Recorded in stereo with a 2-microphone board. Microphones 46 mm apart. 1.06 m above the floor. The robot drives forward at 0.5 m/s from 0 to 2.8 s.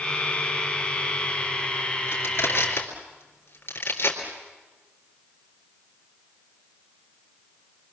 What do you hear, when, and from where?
2.1 s crushing: 60° left (ahead or behind), 3.5 m; by 4.2 s 55° left (ahead or behind), 4 m